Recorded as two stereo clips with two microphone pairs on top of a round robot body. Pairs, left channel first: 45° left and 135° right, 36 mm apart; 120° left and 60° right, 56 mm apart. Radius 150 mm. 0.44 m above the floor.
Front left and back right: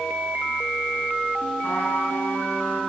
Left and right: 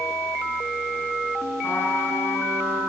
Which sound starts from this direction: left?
A trumpet, at 1.6 s.